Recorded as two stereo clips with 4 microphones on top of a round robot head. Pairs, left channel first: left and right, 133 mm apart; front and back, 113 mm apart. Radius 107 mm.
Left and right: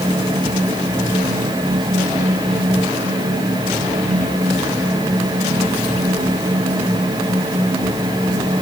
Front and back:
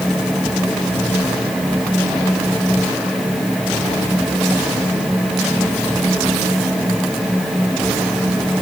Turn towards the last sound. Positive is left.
No sound to turn to.